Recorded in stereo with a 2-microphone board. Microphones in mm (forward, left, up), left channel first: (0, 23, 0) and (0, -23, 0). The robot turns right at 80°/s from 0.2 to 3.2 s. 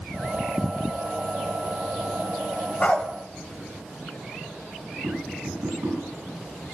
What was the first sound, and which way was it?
A dog barking, 30° left (ahead or behind).